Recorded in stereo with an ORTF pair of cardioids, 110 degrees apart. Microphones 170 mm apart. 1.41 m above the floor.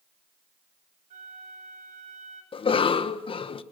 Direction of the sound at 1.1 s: 50° right.